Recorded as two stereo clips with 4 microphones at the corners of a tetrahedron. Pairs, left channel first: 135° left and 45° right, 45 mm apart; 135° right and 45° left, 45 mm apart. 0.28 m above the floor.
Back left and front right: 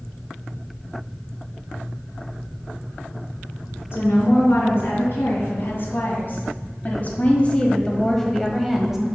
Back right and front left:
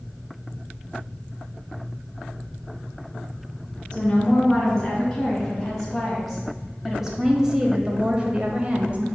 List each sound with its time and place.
3.9 s a woman speaking: 145° left, 2.5 m; by 9.1 s 25° left, 1.2 m